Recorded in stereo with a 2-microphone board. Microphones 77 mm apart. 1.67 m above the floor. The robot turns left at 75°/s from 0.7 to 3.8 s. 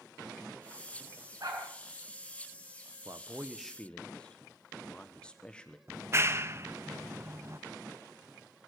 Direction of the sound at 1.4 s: 50° right (ahead or behind).